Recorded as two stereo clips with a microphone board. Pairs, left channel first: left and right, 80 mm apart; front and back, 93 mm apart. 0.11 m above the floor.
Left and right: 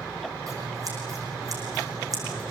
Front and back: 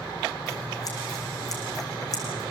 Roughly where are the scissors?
Ahead right.